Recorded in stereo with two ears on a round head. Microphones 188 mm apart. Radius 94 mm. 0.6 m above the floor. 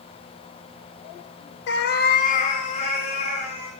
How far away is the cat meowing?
About 0.5 m.